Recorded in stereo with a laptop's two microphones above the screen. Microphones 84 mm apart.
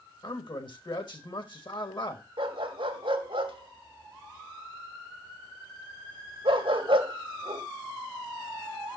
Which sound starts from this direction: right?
A dog barking, at 2.4 s.